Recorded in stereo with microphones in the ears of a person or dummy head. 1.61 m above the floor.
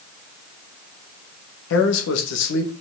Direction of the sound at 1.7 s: 75° left (ahead or behind).